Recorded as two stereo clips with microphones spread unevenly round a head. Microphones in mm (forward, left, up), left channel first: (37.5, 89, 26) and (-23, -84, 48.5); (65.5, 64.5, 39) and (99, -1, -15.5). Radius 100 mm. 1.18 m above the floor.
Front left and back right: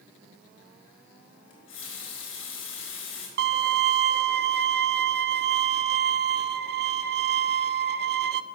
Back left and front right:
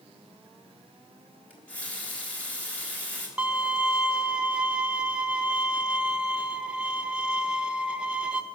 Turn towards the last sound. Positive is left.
turn(degrees=-90)